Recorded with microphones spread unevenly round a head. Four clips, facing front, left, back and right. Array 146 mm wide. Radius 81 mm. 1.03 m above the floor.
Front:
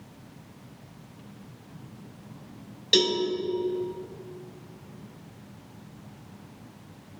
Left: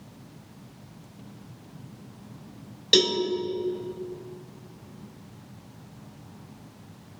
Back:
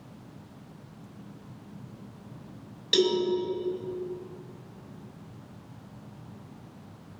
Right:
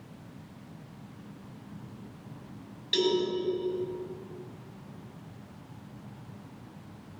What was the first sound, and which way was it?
A cowbell, 90° left.